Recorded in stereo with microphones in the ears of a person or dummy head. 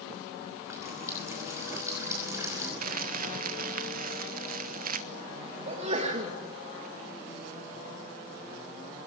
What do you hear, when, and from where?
0.6 s a running tap: 10° right (ahead or behind), 5.5 m
2.8 s crumpling: 55° right (ahead or behind), 1.1 m
5.7 s a sneeze: 40° right (ahead or behind), 2 m